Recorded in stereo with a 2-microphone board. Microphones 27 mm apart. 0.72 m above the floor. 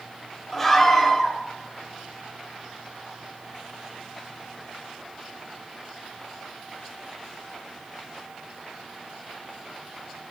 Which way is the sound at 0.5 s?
5° left (ahead or behind).